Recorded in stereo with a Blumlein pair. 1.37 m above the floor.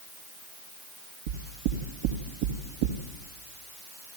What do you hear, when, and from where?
1.3 s knocking: 50° right, 2 m